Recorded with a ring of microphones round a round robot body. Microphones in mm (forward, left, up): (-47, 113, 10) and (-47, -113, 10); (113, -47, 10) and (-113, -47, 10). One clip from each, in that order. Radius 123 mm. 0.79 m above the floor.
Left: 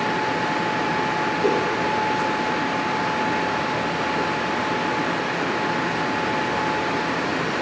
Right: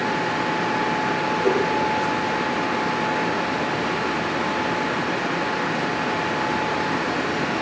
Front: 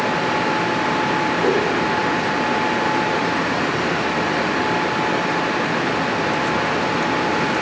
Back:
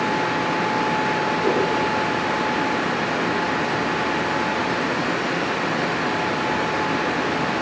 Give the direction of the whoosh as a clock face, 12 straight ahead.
10 o'clock.